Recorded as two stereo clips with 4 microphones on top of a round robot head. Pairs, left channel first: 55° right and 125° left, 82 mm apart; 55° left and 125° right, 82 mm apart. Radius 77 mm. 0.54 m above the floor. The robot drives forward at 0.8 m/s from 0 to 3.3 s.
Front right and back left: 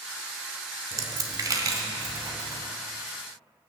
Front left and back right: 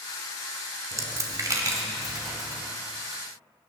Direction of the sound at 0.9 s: Straight behind.